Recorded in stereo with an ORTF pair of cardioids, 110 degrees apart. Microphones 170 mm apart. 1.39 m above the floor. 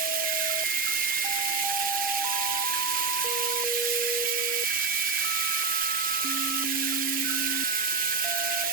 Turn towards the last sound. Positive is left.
turn(degrees=-55)